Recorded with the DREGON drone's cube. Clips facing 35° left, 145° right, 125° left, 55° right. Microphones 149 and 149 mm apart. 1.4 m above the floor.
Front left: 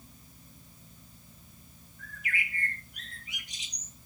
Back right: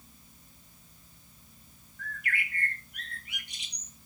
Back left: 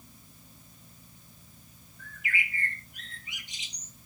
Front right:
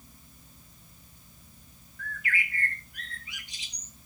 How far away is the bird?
About 2 m.